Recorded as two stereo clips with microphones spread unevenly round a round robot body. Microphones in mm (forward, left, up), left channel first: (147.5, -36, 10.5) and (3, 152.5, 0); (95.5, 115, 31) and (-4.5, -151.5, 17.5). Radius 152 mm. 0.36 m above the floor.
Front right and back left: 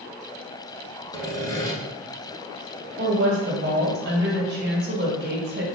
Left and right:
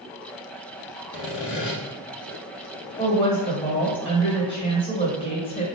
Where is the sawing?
20° left, 1.4 m.